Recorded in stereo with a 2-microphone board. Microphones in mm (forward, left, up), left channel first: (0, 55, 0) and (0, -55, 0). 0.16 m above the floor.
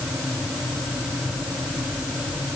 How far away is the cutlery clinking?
No cutlery clinking in this recording.